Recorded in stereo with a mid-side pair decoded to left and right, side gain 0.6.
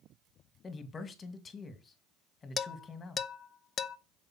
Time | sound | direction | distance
0.6 | a man speaking | 30° left | 2 m
2.6 | dishes clattering | 35° left | 0.9 m